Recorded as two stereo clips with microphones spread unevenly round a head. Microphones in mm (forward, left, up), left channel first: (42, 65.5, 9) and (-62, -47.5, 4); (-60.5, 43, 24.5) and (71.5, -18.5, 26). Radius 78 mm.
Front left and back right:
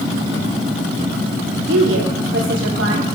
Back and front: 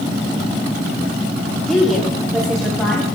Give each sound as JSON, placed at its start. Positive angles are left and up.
{"t": 1.7, "sound": "a woman speaking", "azimuth_deg": -115, "distance_m": 1.5}